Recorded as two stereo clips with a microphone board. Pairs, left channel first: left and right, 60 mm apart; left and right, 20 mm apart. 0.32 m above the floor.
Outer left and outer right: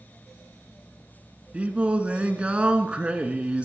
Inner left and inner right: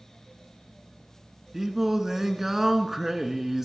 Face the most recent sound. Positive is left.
turn(degrees=-15)  # may be behind; listen again after turning